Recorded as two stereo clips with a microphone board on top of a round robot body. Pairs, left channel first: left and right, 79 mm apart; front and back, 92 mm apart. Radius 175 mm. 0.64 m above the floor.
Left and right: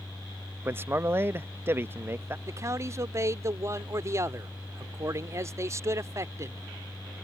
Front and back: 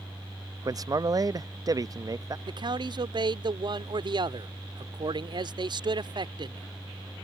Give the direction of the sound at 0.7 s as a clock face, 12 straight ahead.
5 o'clock.